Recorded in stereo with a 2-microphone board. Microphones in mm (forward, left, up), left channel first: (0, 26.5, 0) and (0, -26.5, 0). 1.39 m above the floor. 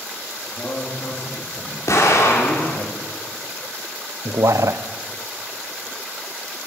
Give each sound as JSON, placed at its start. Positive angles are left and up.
{"t": 0.5, "sound": "a man speaking", "side_deg": 40, "distance_m": 3.0}
{"t": 1.9, "sound": "an explosion", "side_deg": 80, "distance_m": 2.5}
{"t": 4.2, "sound": "a man speaking", "side_deg": -80, "distance_m": 0.6}